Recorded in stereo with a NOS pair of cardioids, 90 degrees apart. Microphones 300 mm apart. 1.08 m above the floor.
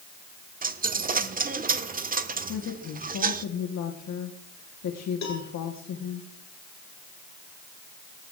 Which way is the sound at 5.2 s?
65° left.